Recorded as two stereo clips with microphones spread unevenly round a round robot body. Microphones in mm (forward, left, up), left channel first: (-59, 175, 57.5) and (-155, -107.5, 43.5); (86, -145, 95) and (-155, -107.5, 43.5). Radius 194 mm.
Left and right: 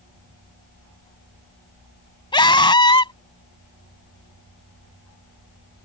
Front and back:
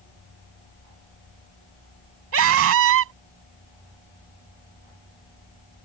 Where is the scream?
145° left.